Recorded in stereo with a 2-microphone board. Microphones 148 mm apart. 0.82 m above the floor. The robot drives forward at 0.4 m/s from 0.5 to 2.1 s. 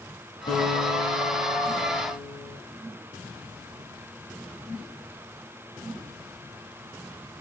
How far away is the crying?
No crying in this recording.